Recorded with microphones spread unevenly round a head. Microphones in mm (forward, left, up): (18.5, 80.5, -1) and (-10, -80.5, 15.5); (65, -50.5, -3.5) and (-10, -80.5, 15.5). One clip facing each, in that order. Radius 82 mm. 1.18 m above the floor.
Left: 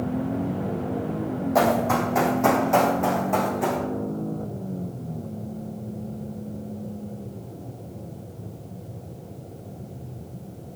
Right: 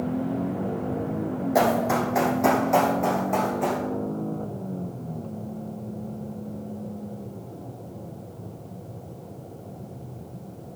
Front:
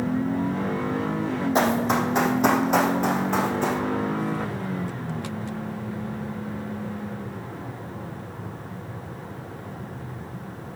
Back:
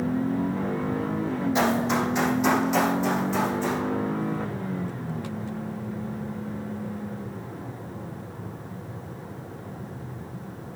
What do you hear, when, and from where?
1.6 s running footsteps: 25° right, 3 m; by 3.8 s 10° right, 4 m